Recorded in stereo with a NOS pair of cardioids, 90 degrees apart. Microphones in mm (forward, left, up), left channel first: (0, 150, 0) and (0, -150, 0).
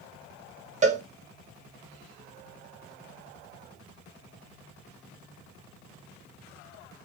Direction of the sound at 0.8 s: 25° right.